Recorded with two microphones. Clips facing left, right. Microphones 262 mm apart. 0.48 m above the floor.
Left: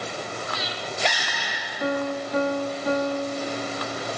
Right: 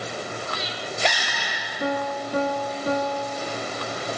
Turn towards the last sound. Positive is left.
turn(degrees=-35)  # may be behind; listen again after turning